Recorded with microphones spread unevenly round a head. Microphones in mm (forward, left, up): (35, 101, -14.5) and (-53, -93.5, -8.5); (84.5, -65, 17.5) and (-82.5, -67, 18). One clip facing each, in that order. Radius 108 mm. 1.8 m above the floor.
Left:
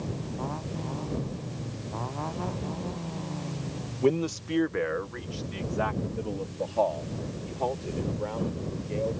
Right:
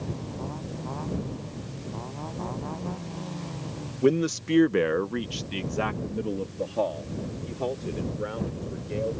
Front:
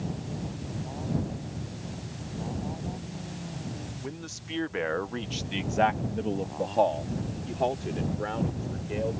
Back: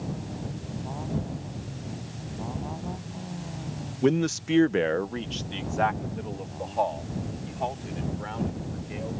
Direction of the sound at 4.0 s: 175° left.